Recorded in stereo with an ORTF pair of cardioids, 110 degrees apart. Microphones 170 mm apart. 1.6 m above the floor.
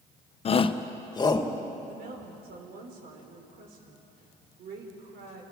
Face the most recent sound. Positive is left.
turn(degrees=-60)